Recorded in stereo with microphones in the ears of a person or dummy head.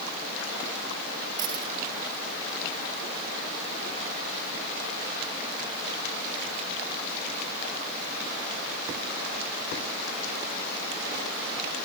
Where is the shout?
I don't hear a shout.